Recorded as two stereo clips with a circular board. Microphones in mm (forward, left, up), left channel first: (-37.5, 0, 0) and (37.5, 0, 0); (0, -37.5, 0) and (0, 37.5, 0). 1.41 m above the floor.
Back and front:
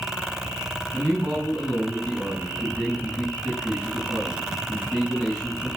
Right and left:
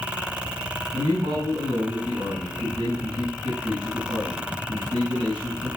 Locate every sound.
0.9 s a man speaking: 85° left, 7 m